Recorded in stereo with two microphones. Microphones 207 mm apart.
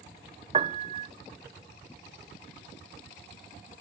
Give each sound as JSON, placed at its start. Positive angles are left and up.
{"t": 0.5, "sound": "a piano", "side_deg": -30}